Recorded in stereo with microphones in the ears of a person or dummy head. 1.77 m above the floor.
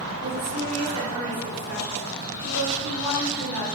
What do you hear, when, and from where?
0.2 s a woman speaking: 65° right (ahead or behind), 0.9 m; by 3.7 s 85° right, 3 m